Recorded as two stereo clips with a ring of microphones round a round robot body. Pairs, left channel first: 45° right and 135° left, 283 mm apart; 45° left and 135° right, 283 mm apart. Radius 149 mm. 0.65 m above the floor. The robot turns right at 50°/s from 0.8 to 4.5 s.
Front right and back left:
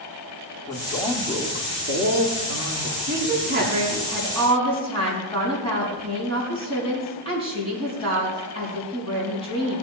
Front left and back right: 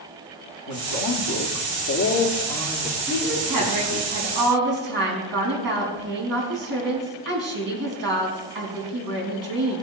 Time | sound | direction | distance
0.7 | a man speaking | 35° left | 1.7 m
3.1 | a woman speaking | 170° left | 5 m